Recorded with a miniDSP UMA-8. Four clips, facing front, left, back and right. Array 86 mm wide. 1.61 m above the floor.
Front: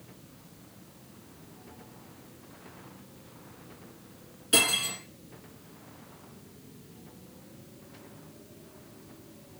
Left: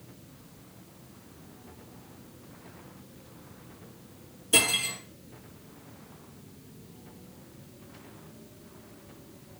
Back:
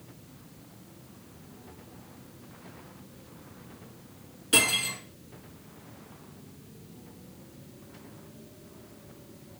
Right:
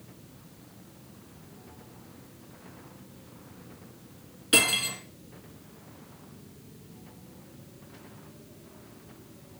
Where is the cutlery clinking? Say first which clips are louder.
Right 2 dB, back 1 dB; 105° right, 1.3 m.